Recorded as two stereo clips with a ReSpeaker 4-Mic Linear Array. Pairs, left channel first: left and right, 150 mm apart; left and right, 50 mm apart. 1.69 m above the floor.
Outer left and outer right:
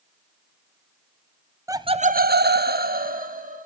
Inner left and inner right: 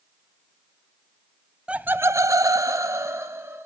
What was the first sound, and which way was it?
Laughter, 20° right (ahead or behind).